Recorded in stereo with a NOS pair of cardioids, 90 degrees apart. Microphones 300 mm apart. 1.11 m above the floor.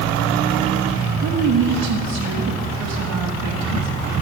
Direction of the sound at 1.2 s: 60° right.